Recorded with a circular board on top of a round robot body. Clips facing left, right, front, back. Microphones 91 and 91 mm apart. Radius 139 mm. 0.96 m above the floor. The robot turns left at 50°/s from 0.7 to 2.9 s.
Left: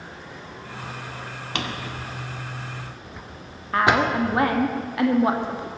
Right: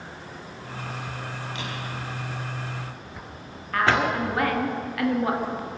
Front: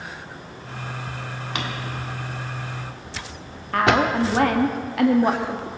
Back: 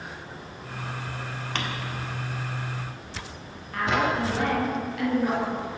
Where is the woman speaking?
25° left, 1.9 m.